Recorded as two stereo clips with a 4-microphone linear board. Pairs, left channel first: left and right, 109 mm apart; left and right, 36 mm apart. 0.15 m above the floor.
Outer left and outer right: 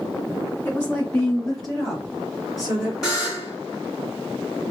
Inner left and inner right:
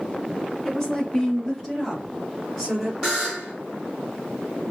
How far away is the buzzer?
About 2.0 m.